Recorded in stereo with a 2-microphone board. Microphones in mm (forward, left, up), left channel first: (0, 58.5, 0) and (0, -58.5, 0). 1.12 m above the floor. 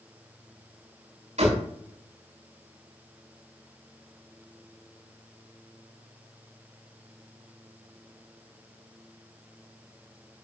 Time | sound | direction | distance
1.4 | a door slam | 80° right | 8.5 m